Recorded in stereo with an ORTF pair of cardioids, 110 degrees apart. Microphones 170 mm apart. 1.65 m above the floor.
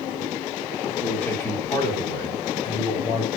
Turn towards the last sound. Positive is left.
turn(degrees=45)